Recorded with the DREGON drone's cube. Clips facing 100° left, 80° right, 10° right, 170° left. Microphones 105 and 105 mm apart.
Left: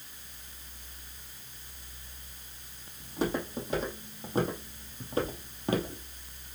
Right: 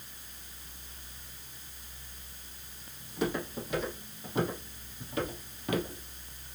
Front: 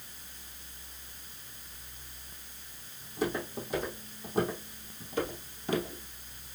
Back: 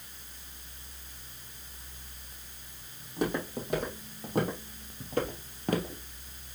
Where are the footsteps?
155° left, 3.5 m; by 6.0 s 150° left, 1.8 m.